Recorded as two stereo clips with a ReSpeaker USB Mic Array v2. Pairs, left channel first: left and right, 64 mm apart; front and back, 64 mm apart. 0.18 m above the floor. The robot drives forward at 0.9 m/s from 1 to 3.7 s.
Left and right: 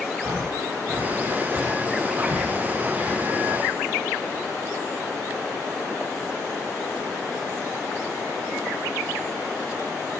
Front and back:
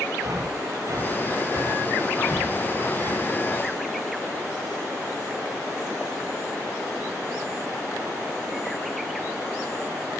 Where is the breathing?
150° right, 5 m; by 3.2 s 160° right, 6.5 m.